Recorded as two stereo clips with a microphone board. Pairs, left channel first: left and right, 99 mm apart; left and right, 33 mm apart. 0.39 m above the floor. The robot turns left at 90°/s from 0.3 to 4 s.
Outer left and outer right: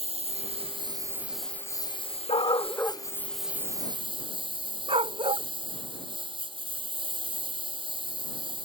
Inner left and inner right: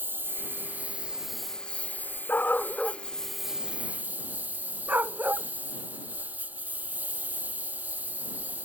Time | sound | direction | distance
0.0 | a lawn mower | 80° right | ?
2.3 | a dog barking | 75° left (ahead or behind) | ?